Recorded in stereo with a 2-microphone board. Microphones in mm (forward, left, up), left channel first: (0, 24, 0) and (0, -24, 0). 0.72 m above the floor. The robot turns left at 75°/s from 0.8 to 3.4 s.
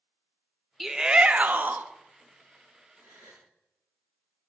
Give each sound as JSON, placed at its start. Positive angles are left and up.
{"t": 0.8, "sound": "a shout", "azimuth_deg": -10, "distance_m": 0.6}
{"t": 3.0, "sound": "a gasp", "azimuth_deg": -45, "distance_m": 4.5}